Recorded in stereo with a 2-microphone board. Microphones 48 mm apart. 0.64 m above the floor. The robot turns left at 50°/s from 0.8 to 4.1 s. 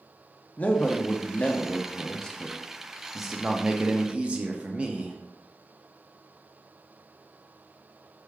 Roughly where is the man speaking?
Left.